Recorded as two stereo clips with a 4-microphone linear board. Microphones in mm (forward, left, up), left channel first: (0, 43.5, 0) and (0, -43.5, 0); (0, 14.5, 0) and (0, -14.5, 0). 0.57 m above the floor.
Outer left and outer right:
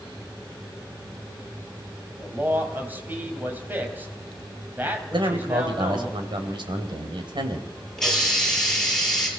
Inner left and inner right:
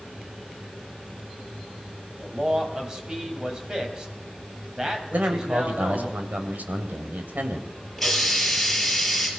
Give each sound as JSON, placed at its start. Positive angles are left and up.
{"t": 2.2, "sound": "a man speaking", "side_deg": -20, "distance_m": 3.5}
{"t": 5.1, "sound": "a man speaking", "side_deg": -70, "distance_m": 3.0}
{"t": 8.0, "sound": "a hiss", "side_deg": 5, "distance_m": 6.0}